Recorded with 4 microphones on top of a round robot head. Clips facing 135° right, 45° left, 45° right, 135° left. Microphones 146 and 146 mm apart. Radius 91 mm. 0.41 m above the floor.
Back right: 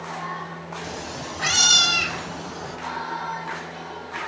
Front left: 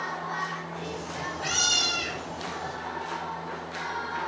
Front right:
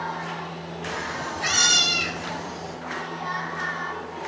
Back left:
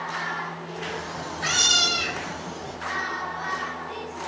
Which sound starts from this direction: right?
A cat meowing, at 0.8 s.